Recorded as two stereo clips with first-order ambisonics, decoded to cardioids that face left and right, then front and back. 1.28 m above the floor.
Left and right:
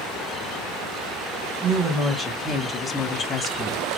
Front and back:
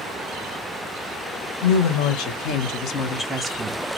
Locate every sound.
1.6 s a woman speaking: straight ahead, 1.4 m; by 3.8 s 150° left, 0.6 m